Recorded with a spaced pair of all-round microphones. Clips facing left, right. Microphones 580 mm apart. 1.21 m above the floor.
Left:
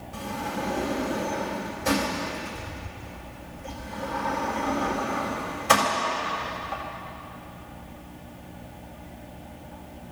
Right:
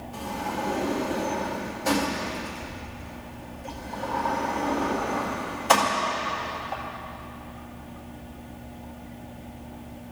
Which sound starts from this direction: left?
A sliding door, at 0.1 s.